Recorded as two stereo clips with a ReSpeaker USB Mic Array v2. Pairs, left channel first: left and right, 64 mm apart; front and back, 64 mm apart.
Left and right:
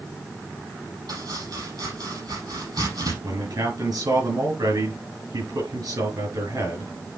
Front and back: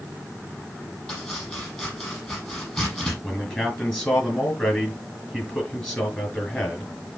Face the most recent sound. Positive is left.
turn(degrees=-75)